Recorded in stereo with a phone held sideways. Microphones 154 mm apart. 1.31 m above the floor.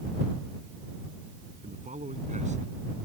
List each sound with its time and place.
1.6 s a man speaking: 55° right (ahead or behind); by 2.7 s 50° right (ahead or behind)